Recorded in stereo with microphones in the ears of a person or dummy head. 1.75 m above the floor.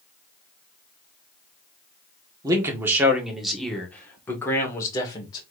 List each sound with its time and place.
2.4 s a man speaking: 20° right (ahead or behind), 1.6 m; by 5.4 s 25° left (ahead or behind), 2.5 m